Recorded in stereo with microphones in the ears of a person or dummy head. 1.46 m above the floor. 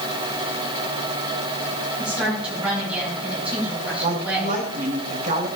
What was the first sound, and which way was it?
A woman speaking, 10° right (ahead or behind).